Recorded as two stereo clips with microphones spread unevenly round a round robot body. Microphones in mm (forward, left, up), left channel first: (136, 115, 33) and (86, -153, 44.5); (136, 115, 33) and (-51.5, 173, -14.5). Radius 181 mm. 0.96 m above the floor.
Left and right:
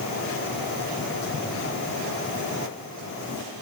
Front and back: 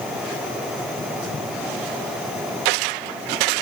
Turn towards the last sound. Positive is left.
No sound to turn to.